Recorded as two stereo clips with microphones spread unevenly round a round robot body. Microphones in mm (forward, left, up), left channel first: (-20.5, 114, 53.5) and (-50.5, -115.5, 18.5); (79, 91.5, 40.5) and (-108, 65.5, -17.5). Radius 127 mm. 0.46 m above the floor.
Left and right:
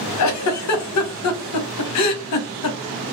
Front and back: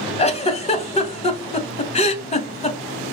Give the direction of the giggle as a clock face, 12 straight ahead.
10 o'clock.